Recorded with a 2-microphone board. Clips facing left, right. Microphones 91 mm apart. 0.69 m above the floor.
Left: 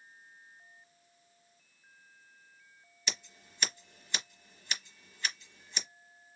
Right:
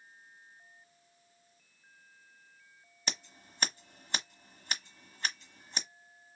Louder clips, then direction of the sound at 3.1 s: Right 1 dB; 40° right (ahead or behind).